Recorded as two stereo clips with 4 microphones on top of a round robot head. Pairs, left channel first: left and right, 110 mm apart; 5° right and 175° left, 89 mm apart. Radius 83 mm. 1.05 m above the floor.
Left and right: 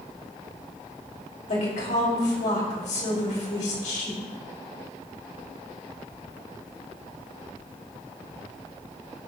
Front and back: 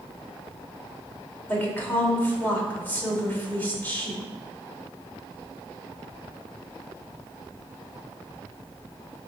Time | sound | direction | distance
1.5 | a woman speaking | 65° left | 4.5 m